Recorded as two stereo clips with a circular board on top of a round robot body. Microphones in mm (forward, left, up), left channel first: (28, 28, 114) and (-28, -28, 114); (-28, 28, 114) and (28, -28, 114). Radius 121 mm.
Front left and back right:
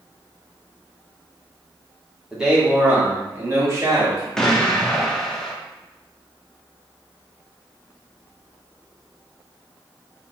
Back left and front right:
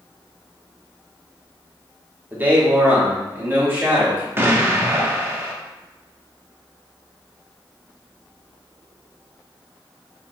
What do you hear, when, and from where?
2.3 s a man speaking: 60° right, 1.4 m; by 4.3 s 105° right, 2 m
4.4 s an explosion: 35° right, 0.9 m